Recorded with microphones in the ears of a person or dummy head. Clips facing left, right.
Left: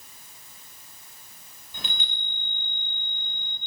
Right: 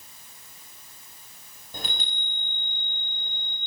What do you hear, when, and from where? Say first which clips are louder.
1.7 s a chime: right 3 dB; 40° right (ahead or behind), 3 m